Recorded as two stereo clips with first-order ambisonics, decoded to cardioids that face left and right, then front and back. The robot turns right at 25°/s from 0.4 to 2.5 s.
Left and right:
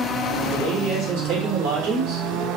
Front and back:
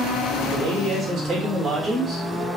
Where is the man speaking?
140° right, 1.0 m; by 2.5 s 90° right, 1.0 m.